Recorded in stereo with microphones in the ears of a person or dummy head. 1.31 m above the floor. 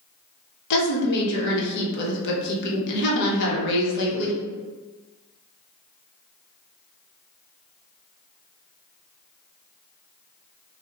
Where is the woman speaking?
65° left (ahead or behind), 0.8 m.